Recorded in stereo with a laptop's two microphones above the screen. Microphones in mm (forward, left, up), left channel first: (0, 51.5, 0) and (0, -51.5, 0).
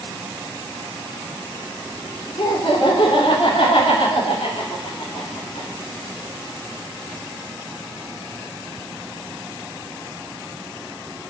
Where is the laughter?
55° left (ahead or behind), 3.5 m.